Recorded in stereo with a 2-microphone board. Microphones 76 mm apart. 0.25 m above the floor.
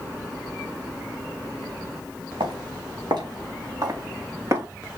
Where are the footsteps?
75° right (ahead or behind), 4.5 m; by 4.7 s 40° right (ahead or behind), 5.5 m.